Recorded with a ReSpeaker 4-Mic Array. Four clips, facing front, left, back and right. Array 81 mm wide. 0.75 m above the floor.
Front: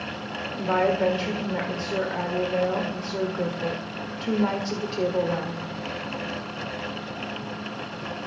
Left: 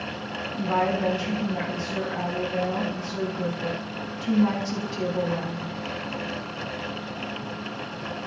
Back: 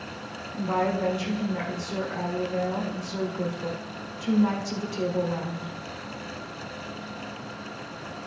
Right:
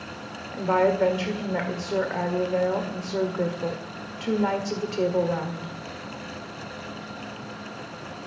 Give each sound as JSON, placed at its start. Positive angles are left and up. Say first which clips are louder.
{"t": 0.5, "sound": "a woman speaking", "louder": "right 3 dB, front 3 dB", "azimuth_deg": -65, "distance_m": 1.9}